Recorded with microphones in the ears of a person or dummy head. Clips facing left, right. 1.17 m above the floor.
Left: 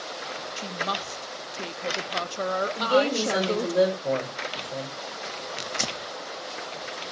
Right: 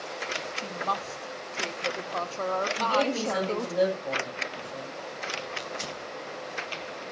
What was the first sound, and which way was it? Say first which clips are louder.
A woman speaking: left 1 dB; 15° left (ahead or behind).